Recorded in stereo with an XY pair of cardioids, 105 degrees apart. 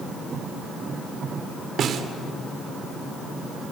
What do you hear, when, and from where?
1.8 s a snare drum: 60° right, 2 m